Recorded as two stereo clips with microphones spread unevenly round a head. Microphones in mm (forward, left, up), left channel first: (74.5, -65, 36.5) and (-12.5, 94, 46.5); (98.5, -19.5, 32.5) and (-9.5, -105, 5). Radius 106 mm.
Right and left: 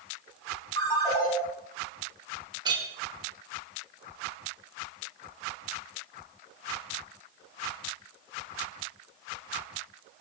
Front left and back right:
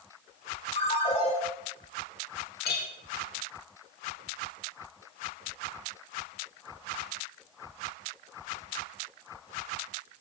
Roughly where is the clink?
Ahead left.